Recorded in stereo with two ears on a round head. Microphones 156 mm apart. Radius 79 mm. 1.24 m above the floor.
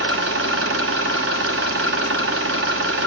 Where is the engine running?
75° right (ahead or behind), 1.0 m.